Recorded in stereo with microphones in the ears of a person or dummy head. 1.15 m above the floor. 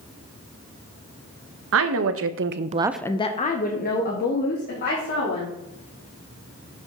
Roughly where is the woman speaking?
Right.